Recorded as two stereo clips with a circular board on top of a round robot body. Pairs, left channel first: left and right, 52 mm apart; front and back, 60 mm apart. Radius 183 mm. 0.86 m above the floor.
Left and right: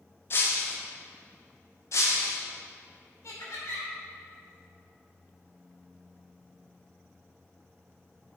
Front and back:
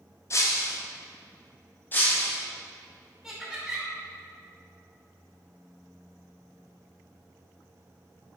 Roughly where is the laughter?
Left.